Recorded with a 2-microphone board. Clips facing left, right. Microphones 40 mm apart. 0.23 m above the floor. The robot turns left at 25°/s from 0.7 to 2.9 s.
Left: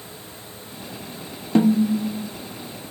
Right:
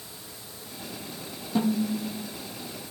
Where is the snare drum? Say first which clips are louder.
Left 8 dB; 70° left (ahead or behind), 1.1 m; by 2.3 s 85° left, 1.1 m.